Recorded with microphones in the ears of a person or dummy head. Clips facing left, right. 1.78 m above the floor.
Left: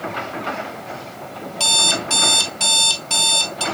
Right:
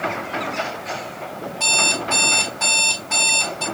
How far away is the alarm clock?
About 5 m.